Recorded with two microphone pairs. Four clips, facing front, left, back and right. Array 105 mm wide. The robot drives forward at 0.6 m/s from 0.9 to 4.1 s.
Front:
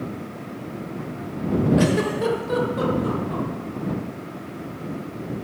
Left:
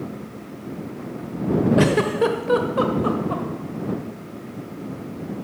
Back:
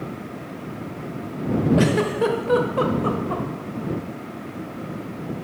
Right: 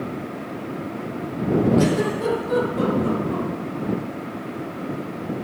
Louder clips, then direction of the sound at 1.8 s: Left 2 dB, back 1 dB; 95° left.